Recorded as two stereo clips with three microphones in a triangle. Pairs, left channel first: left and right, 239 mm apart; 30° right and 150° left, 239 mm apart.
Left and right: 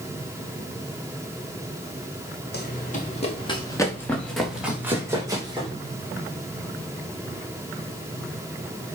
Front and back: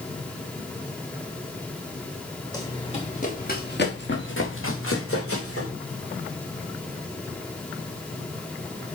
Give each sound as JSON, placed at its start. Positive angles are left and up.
{"t": 2.5, "sound": "running footsteps", "azimuth_deg": 45, "distance_m": 3.5}